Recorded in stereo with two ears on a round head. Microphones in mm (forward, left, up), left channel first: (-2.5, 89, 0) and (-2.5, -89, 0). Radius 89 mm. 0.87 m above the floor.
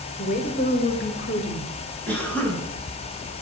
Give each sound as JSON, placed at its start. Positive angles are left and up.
{"t": 0.2, "sound": "a woman speaking", "side_deg": 45, "distance_m": 3.5}
{"t": 2.1, "sound": "a cough", "side_deg": 5, "distance_m": 6.0}